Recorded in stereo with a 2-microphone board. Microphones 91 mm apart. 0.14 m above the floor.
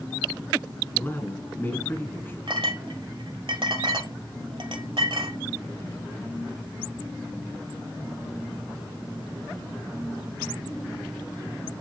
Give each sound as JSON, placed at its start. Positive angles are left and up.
{"t": 0.9, "sound": "a man speaking", "side_deg": 25, "distance_m": 1.7}
{"t": 2.5, "sound": "a clink", "side_deg": -65, "distance_m": 1.6}